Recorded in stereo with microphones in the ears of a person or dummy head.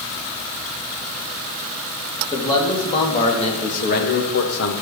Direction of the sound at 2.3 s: 25° left (ahead or behind).